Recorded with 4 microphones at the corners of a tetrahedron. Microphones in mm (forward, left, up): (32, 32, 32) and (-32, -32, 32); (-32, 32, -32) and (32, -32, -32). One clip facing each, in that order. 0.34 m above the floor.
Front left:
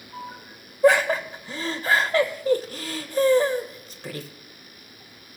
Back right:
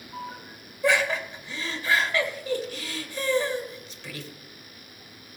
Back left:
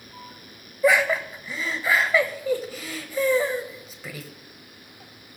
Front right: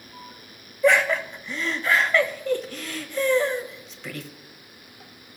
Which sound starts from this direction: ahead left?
Laughter, at 0.8 s.